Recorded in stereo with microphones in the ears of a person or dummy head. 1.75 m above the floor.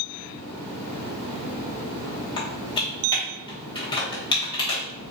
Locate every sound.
2.4 s typing on a keyboard: 30° left (ahead or behind), 1.0 m